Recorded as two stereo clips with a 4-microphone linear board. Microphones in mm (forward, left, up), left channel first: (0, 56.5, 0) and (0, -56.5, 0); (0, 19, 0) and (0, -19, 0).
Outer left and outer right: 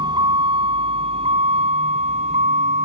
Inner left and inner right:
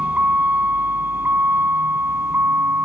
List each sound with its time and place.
0.0 s a vehicle: 45° right (ahead or behind); by 2.8 s 90° right